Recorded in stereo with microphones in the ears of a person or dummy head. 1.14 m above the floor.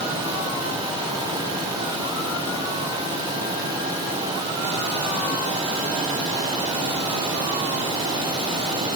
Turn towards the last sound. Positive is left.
No sound to turn to.